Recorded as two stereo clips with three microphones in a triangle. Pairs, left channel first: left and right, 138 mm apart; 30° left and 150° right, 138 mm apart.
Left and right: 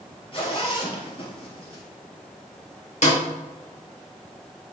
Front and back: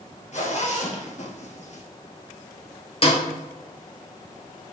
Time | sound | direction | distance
0.3 | a zipper | 50° left | 2 m
3.0 | a snare drum | 70° left | 2.5 m